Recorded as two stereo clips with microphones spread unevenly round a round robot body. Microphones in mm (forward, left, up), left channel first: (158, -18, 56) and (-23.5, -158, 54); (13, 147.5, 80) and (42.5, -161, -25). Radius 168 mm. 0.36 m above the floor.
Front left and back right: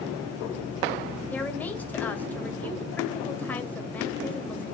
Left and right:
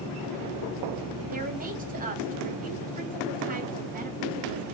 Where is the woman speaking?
45° right, 2.5 m.